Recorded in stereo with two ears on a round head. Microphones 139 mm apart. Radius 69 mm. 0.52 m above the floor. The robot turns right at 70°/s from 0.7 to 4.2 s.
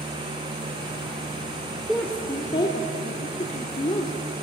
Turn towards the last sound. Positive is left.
turn(degrees=155)